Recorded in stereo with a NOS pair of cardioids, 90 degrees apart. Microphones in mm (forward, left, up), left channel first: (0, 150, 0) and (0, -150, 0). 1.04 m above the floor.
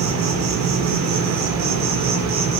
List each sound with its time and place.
0.0 s an insect: 70° right, 1.1 m